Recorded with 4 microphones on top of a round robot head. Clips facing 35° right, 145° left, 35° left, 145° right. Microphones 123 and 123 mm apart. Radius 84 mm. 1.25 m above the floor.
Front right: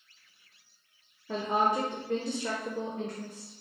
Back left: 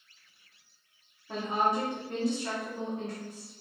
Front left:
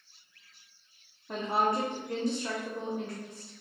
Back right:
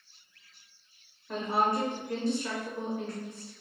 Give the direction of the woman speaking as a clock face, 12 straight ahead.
1 o'clock.